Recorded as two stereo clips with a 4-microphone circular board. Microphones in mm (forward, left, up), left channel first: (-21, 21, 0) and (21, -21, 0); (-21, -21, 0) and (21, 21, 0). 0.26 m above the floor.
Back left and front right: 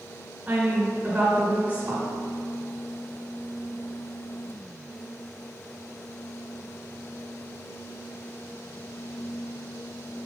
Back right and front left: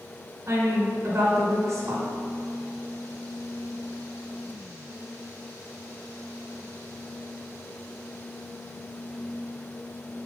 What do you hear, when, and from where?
0.5 s a woman speaking: 15° left, 2 m